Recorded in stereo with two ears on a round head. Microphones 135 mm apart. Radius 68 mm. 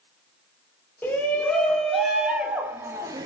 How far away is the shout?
About 3 m.